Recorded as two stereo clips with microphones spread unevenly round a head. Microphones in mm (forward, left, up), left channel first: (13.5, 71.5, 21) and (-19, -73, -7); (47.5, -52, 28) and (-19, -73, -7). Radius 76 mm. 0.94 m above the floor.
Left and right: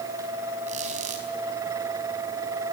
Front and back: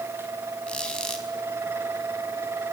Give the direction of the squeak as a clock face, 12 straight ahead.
2 o'clock.